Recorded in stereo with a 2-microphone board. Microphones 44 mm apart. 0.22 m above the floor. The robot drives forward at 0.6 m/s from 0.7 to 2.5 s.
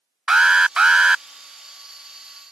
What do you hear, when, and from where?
0.3 s an alarm: 20° right (ahead or behind)